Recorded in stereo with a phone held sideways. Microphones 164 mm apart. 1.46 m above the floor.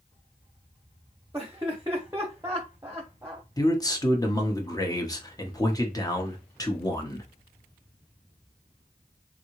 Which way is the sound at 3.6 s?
20° left (ahead or behind).